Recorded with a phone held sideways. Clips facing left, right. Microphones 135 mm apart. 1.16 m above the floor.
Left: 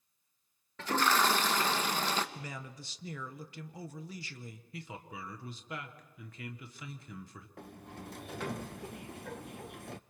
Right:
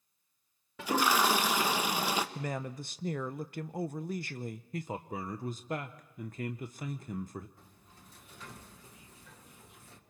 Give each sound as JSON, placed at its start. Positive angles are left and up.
{"t": 0.8, "sound": "a toilet flushing", "side_deg": -10, "distance_m": 1.0}
{"t": 2.4, "sound": "a man speaking", "side_deg": -55, "distance_m": 0.6}
{"t": 4.7, "sound": "a man speaking", "side_deg": -45, "distance_m": 0.8}
{"t": 7.6, "sound": "a sliding door", "side_deg": 75, "distance_m": 0.6}